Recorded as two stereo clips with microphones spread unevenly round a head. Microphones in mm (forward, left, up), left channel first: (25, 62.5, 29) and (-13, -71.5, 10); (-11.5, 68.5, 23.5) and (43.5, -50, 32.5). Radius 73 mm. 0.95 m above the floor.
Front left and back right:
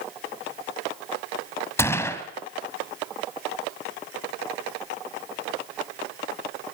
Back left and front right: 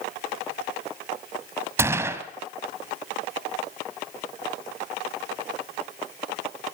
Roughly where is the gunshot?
Ahead.